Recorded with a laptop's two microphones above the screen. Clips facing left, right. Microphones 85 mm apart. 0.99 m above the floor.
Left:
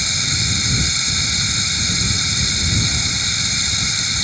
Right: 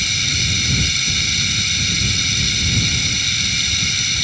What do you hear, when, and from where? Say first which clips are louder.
0.0 s running water: even; 25° left (ahead or behind)